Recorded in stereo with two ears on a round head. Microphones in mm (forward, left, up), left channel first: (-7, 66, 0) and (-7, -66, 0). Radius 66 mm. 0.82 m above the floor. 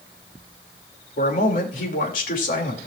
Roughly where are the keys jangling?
I don't hear keys jangling.